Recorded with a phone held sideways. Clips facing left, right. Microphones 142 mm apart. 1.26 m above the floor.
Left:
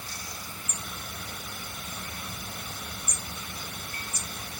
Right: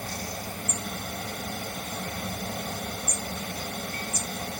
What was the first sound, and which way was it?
A fan, 60° right (ahead or behind).